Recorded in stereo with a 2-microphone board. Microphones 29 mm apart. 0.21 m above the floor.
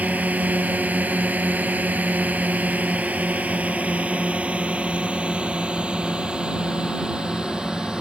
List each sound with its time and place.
0.0 s a drone: 60° right (ahead or behind); by 8.0 s 30° right (ahead or behind)